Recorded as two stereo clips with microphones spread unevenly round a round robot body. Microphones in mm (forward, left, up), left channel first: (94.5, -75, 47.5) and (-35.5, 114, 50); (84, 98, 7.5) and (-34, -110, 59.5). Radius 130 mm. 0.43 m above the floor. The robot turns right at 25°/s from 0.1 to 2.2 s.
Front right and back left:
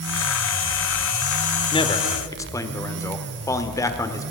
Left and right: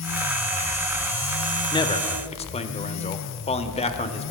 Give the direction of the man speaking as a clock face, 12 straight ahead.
12 o'clock.